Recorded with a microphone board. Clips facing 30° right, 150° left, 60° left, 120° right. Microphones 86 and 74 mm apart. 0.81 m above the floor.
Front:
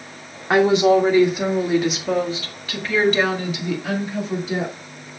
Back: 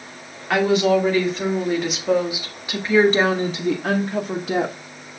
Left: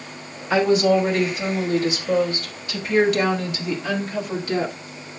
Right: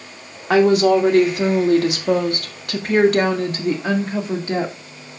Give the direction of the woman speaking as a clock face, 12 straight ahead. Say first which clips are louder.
Front 3 dB, right 4 dB; 3 o'clock.